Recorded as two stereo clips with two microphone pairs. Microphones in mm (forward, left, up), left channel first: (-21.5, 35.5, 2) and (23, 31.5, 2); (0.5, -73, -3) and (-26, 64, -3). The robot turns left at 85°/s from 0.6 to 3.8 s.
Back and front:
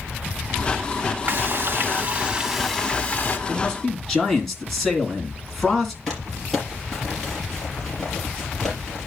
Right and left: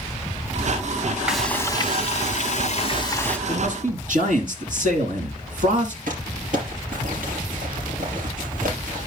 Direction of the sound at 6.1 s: 90° left.